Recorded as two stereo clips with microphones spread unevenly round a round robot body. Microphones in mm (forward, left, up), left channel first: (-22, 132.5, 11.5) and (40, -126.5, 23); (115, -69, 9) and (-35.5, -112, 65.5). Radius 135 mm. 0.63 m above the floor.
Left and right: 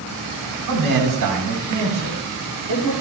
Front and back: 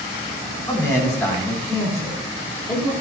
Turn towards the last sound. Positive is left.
turn(degrees=-65)